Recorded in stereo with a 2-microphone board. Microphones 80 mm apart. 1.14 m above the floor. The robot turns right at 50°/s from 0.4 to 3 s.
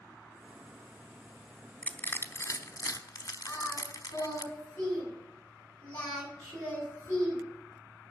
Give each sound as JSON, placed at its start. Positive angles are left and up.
{"t": 1.8, "sound": "crushing", "side_deg": 20, "distance_m": 1.0}
{"t": 3.5, "sound": "singing", "side_deg": 15, "distance_m": 7.0}